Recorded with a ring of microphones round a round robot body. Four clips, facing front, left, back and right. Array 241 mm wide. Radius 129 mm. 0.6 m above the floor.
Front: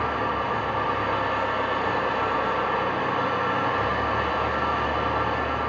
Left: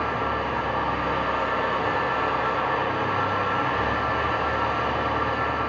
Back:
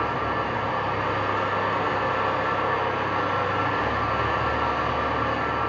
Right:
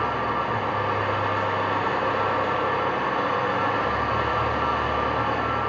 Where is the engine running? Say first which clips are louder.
Right 1 dB, even; 100° right, 0.9 m.